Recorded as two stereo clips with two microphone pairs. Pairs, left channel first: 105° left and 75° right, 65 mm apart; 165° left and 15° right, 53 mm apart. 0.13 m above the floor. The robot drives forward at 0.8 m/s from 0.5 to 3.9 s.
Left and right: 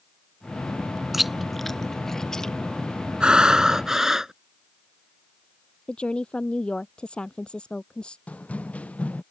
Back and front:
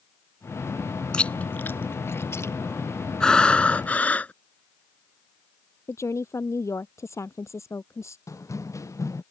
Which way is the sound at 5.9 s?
Straight behind.